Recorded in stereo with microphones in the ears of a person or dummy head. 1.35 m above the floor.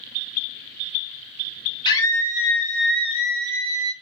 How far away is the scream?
About 0.6 m.